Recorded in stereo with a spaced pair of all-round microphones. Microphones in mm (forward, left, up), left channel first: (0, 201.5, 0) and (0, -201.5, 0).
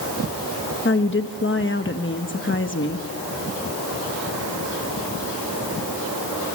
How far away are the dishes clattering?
No dishes clattering in this recording.